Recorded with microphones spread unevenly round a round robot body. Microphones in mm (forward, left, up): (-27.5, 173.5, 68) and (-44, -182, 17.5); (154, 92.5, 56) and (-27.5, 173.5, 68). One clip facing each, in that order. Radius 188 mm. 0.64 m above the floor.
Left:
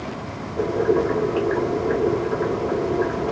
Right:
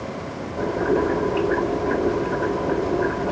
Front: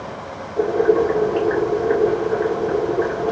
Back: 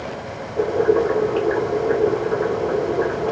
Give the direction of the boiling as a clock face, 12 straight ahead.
10 o'clock.